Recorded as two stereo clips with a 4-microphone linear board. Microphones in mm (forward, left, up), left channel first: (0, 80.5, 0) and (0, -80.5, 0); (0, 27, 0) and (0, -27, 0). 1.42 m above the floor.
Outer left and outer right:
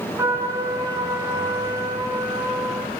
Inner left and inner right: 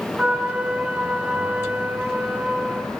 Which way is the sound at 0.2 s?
20° right (ahead or behind).